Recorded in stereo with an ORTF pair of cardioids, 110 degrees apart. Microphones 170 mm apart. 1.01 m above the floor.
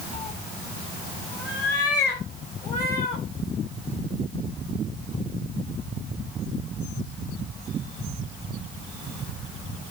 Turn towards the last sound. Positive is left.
turn(degrees=75)